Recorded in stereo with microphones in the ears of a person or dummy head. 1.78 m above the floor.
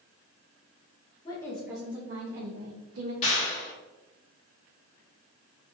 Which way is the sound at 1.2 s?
25° left (ahead or behind).